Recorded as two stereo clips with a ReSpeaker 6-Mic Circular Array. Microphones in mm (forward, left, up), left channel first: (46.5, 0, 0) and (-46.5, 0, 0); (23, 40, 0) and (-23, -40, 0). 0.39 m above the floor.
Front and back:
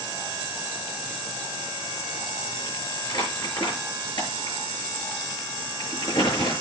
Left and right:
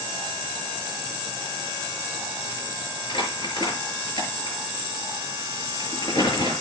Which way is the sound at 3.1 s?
35° left.